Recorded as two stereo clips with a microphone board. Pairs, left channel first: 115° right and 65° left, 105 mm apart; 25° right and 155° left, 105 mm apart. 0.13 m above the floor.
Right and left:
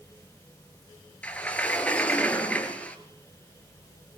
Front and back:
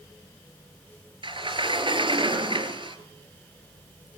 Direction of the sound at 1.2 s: 170° left.